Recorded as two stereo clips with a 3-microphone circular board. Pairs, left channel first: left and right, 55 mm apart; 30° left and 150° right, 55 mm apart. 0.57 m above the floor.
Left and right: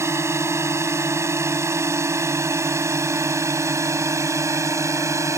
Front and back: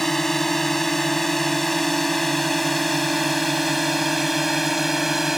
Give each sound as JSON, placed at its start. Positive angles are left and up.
{"t": 0.0, "sound": "a drone", "azimuth_deg": -55}